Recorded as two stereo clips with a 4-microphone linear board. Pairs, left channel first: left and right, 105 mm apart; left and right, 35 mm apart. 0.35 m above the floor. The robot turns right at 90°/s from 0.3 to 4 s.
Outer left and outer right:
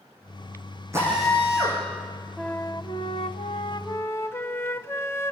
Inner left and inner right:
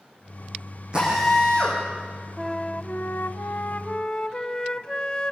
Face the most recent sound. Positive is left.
turn(degrees=155)